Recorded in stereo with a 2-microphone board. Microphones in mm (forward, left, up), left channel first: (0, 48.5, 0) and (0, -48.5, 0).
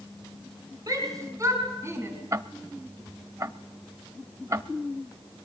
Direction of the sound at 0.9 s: 40° right (ahead or behind).